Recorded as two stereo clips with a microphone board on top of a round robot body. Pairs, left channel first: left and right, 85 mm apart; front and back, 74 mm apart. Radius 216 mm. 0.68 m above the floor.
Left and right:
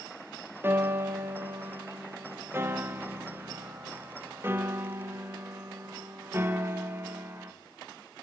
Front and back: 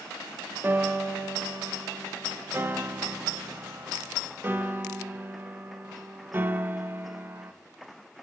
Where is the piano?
135° right, 0.9 m.